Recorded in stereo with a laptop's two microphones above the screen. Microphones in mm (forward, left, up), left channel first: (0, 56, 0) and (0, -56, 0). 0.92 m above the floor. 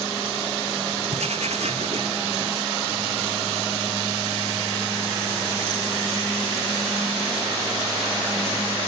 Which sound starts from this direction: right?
Writing, at 1.1 s.